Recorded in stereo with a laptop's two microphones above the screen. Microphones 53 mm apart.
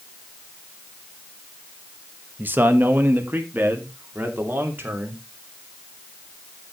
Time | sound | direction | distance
2.4 | a man speaking | 35° right (ahead or behind) | 1.1 m